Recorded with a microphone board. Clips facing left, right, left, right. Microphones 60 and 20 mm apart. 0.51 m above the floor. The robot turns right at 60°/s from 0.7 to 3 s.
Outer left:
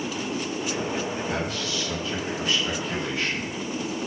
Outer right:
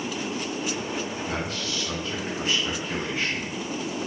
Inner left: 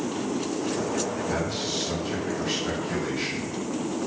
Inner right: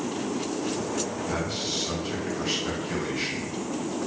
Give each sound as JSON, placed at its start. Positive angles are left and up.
{"t": 1.3, "sound": "a man speaking", "azimuth_deg": -135, "distance_m": 1.3}